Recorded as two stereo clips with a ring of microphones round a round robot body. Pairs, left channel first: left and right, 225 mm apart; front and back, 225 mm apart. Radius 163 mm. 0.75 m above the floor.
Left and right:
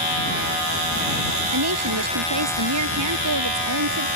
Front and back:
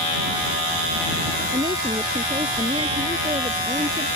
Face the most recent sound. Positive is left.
turn(degrees=-100)